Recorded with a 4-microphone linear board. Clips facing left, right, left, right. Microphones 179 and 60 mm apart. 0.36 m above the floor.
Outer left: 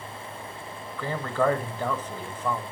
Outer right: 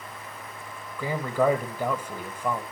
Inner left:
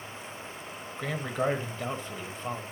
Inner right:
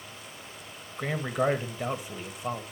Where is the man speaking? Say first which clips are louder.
Outer right 1 dB, inner right 2 dB; 10° right (ahead or behind), 1.5 m.